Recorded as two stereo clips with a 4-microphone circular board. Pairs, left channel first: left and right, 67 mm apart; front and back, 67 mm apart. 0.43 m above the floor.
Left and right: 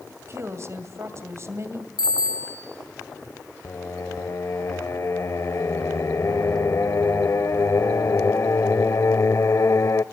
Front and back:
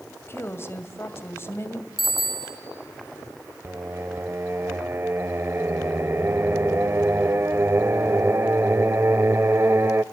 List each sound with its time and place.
0.1 s a woman speaking: 50° right, 2 m
2.0 s a bicycle bell: 90° left, 5.5 m
3.6 s singing: 130° left, 0.6 m